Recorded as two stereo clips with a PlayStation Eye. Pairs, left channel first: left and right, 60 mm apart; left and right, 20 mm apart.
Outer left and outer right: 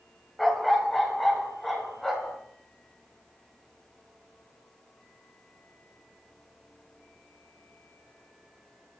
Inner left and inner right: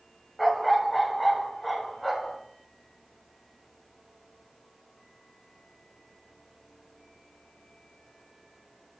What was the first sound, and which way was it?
A dog barking, centre (ahead or behind).